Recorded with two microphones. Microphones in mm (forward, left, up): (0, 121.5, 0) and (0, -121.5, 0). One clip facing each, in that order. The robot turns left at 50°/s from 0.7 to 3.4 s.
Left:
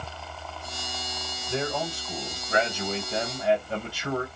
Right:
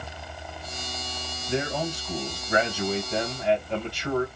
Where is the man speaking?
20° right (ahead or behind), 1.7 m; by 4.3 s 5° left (ahead or behind), 1.7 m.